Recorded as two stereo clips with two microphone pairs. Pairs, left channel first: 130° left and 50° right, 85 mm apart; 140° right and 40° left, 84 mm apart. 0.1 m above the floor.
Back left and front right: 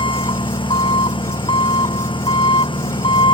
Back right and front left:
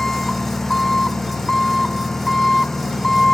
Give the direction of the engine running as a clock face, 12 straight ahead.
8 o'clock.